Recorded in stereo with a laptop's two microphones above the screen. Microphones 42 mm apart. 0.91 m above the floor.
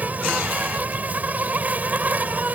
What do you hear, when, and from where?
0.0 s an insect: 40° right (ahead or behind)